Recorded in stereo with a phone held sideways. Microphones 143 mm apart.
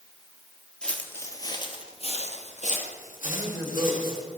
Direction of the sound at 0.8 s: 5° left (ahead or behind).